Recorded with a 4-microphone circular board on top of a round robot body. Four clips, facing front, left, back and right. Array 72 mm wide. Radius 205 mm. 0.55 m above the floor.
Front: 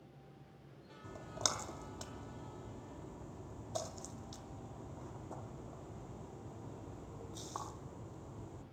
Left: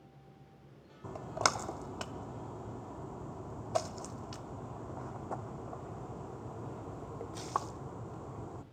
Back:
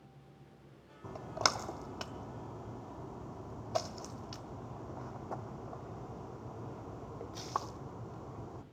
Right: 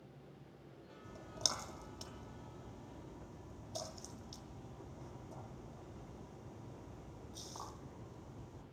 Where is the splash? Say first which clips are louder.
Left 14 dB, back 8 dB; 120° left, 0.7 m.